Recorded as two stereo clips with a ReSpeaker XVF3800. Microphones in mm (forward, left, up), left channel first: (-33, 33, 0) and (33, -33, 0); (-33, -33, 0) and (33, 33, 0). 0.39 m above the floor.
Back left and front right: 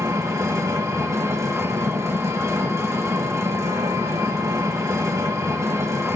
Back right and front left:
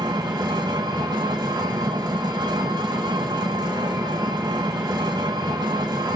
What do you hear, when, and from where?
0.0 s an engine running: 10° left, 1.6 m